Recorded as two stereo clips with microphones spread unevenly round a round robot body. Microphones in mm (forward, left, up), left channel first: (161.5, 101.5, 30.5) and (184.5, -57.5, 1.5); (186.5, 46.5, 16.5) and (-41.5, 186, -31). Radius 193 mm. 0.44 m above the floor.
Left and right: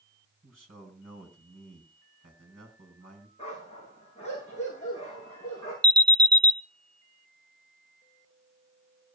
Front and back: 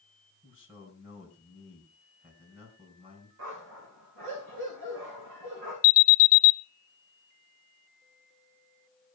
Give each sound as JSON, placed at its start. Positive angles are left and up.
{"t": 0.4, "sound": "a man speaking", "azimuth_deg": -140, "distance_m": 3.5}
{"t": 3.4, "sound": "a dog barking", "azimuth_deg": 175, "distance_m": 8.0}
{"t": 5.8, "sound": "an alarm", "azimuth_deg": -35, "distance_m": 0.8}